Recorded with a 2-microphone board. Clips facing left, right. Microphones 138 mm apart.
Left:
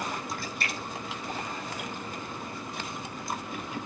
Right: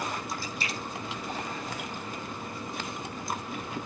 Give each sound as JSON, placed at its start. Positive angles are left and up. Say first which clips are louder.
{"t": 0.4, "sound": "a splash", "louder": "even", "side_deg": 60, "distance_m": 3.0}